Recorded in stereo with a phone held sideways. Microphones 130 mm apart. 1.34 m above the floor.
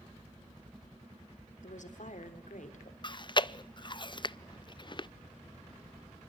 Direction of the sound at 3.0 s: 35° left (ahead or behind).